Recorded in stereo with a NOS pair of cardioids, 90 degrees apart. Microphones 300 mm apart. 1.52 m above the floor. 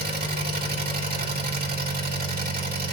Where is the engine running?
30° right, 8 m.